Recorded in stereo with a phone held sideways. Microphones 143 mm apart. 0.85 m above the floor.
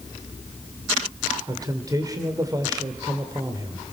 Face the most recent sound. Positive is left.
turn(degrees=-25)  # may be behind; listen again after turning